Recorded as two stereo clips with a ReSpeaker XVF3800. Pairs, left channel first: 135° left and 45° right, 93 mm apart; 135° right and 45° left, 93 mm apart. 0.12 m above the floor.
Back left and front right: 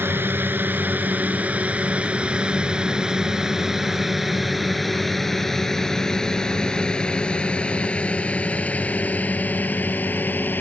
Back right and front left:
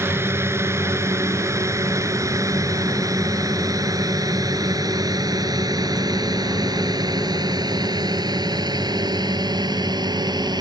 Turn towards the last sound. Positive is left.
turn(degrees=70)